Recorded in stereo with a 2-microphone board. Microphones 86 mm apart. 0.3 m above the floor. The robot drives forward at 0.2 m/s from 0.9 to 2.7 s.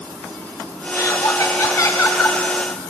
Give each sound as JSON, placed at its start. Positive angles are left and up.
{"t": 0.9, "sound": "laughter", "side_deg": 40, "distance_m": 2.5}